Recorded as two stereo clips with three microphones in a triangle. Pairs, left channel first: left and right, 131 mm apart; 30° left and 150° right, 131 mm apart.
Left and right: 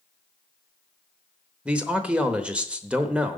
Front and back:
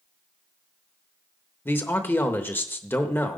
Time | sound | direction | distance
1.6 | a man speaking | 20° right | 0.9 m